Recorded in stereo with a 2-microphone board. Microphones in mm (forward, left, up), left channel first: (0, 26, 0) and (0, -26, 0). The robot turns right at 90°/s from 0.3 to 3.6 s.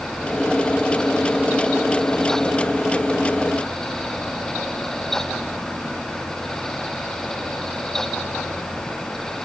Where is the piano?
No piano in this recording.